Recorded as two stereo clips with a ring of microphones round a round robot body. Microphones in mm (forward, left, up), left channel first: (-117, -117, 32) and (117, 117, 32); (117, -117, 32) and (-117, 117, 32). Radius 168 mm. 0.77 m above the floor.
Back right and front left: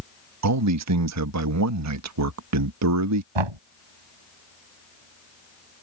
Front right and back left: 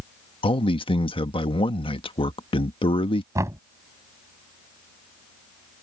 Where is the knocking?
55° left.